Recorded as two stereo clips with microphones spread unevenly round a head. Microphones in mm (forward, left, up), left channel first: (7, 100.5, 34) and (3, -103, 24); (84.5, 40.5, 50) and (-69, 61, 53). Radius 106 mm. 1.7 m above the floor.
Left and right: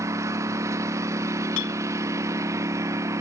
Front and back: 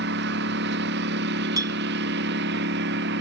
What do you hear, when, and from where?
0.0 s a lawn mower: 170° right
1.6 s a clink: 105° left